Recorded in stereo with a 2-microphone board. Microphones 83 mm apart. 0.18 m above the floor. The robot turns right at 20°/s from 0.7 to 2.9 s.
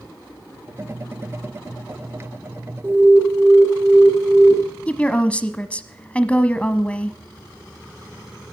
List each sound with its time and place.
2.8 s an alarm: 30° right (ahead or behind), 3.5 m
4.9 s a woman speaking: 15° left (ahead or behind), 1.0 m